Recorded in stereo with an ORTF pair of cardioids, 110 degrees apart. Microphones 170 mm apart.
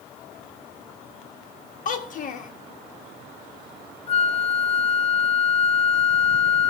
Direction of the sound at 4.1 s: 35° left.